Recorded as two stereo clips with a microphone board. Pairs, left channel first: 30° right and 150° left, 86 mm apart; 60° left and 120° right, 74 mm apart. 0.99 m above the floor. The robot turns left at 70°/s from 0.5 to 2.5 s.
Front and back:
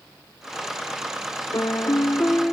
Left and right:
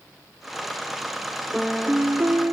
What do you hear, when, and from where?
1.5 s a piano: 30° right, 0.5 m; by 2.5 s 100° right, 0.5 m